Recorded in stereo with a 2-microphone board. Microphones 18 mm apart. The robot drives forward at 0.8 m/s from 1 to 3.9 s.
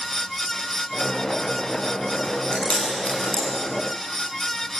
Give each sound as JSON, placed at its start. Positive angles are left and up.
{"t": 2.2, "sound": "chewing", "side_deg": 70, "distance_m": 8.5}